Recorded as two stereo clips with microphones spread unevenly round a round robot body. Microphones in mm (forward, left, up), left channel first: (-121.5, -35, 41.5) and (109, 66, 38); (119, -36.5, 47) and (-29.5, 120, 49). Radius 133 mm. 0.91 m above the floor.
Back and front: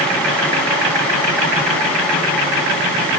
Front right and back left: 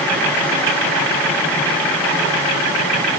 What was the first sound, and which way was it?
Only background noise.